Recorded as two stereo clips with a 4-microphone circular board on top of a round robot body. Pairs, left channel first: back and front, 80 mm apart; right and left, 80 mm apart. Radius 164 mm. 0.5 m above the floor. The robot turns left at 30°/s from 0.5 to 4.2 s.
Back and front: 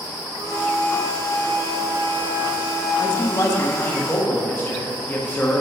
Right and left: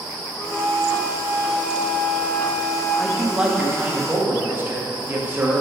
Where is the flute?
5° right, 1.5 m; by 3.0 s 80° right, 1.5 m.